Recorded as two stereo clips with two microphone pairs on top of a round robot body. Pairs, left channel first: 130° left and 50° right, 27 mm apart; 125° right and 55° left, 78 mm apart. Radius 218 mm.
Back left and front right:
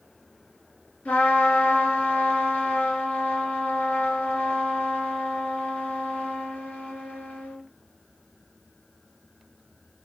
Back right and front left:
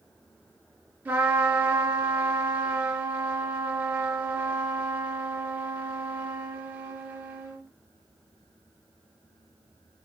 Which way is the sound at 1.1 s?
120° left.